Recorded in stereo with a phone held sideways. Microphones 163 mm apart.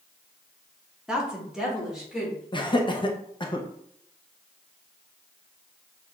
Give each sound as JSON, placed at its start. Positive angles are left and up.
{"t": 1.1, "sound": "a woman speaking", "side_deg": -5, "distance_m": 1.1}
{"t": 2.5, "sound": "laughter", "side_deg": 30, "distance_m": 0.9}